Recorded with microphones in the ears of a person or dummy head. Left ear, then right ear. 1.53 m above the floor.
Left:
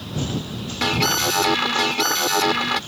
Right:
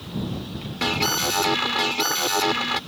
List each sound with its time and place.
0.8 s an alarm: 5° right (ahead or behind)